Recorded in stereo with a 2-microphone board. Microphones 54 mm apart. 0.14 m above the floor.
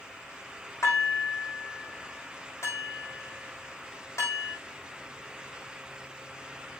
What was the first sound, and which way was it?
Dishes clattering, 60° left (ahead or behind).